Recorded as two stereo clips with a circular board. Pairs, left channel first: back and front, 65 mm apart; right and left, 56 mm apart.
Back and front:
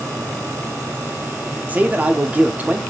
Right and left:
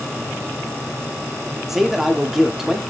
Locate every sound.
1.7 s a man speaking: 10° left, 0.7 m